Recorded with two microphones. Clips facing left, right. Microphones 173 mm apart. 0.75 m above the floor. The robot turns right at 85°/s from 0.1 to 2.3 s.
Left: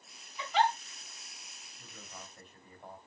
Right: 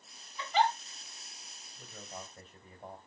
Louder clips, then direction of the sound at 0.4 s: Even; 15° left (ahead or behind).